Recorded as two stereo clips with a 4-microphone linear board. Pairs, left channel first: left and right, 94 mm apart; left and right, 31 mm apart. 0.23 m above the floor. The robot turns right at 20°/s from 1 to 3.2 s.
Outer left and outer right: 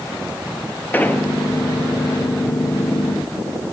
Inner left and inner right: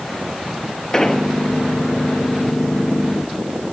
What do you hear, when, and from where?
0.9 s an explosion: 20° left (ahead or behind), 1.5 m; by 1.2 s 15° left (ahead or behind), 1.5 m